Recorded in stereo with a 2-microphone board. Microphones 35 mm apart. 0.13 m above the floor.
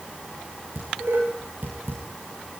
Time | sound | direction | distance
0.8 | dishes clattering | 85° right | 8.5 m